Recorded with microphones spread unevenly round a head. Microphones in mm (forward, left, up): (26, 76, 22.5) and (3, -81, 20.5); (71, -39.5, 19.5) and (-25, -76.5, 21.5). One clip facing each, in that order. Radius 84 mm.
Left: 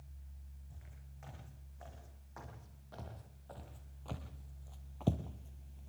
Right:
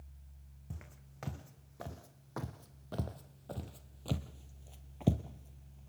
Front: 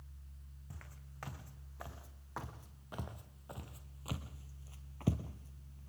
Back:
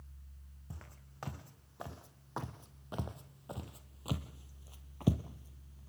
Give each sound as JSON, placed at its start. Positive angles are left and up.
{"t": 0.7, "sound": "footsteps", "azimuth_deg": -95, "distance_m": 3.5}